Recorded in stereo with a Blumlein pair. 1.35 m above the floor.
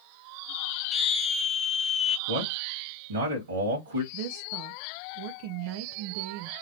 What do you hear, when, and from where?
0.9 s a scream: 15° left, 1.2 m
2.3 s a man speaking: 65° right, 2.5 m
4.1 s a woman speaking: 45° right, 0.5 m